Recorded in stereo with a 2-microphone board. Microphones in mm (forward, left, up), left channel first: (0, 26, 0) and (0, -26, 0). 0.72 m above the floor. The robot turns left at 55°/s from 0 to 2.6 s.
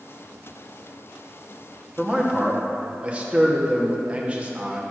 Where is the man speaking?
10° right, 0.9 m; by 4.8 s 40° right, 0.9 m.